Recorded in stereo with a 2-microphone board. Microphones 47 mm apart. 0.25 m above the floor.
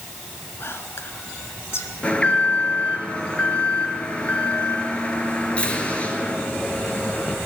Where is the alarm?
30° left (ahead or behind), 4 m.